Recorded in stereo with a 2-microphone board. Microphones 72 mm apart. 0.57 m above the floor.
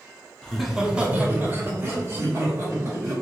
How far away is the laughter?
About 0.6 m.